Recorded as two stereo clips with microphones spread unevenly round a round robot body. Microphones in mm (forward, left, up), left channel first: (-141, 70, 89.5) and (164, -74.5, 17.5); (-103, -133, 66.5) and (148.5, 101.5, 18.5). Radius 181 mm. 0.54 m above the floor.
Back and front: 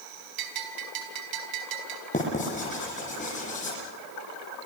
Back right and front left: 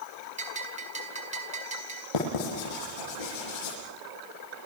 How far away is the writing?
About 10 m.